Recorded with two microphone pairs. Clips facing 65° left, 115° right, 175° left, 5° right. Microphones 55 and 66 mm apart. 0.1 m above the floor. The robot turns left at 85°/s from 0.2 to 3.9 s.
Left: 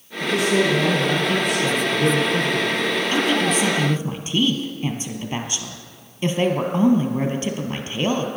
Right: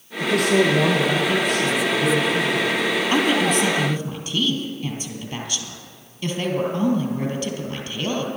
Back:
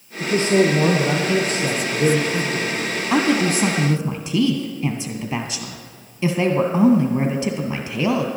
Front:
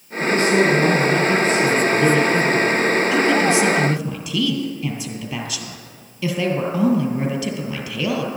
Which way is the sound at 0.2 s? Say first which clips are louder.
Right 1 dB, front 1 dB; 100° right.